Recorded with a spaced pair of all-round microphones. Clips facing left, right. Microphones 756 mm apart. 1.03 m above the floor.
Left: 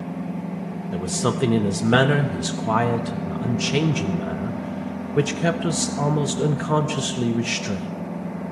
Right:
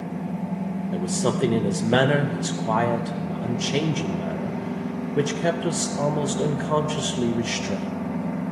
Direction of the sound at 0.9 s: 45° left (ahead or behind).